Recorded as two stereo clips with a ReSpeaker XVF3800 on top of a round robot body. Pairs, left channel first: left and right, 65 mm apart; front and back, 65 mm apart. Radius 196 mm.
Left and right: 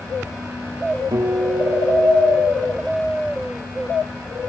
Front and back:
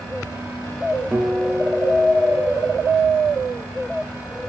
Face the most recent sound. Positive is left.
turn(degrees=-105)